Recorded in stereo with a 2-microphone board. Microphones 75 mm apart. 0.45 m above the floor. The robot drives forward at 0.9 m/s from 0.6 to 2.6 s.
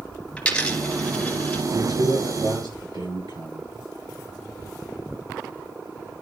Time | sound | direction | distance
0.4 | a dropped coin | 15° left (ahead or behind) | 2.5 m
1.7 | a man speaking | 75° right (ahead or behind) | 8 m